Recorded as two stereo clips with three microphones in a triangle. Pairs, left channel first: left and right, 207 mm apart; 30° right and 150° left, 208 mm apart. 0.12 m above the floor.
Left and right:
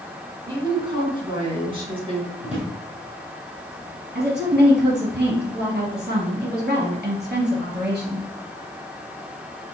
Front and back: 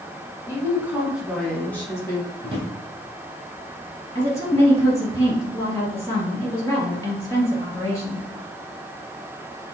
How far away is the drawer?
About 1.9 m.